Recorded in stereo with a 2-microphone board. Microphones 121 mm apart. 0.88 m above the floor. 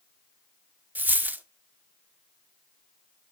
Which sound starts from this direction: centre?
A dropped coin, at 0.9 s.